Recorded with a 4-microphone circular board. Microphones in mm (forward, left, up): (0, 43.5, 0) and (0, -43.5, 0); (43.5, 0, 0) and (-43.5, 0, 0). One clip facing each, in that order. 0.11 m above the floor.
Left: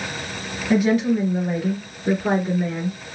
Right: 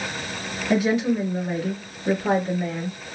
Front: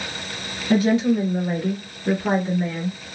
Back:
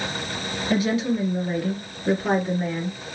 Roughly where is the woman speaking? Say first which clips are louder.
Left 3 dB, front 5 dB; ahead.